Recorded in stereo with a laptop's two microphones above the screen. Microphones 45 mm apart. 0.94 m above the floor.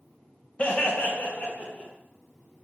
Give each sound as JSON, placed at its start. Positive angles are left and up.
{"t": 0.6, "sound": "laughter", "side_deg": 30, "distance_m": 0.7}